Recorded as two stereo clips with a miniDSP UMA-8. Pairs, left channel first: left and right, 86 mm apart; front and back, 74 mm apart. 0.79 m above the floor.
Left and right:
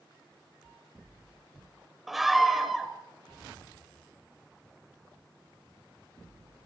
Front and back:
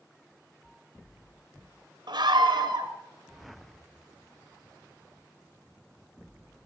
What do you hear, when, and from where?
2.1 s a scream: straight behind, 3 m